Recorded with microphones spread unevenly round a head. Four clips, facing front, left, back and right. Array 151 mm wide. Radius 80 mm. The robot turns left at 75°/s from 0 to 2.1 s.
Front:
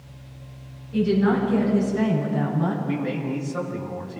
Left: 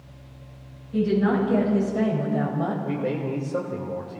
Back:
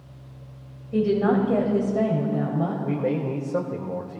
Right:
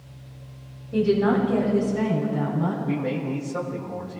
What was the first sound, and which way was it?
A woman speaking, 140° right.